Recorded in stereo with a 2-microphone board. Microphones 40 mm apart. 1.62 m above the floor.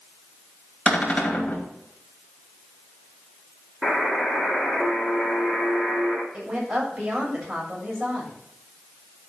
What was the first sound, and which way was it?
A cupboard door, 30° left (ahead or behind).